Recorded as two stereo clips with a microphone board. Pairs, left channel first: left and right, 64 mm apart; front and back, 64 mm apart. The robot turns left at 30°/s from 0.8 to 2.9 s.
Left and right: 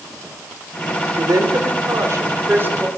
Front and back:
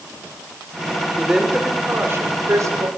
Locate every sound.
1.2 s a woman speaking: 100° right, 2.5 m; by 2.9 s 155° right, 2.5 m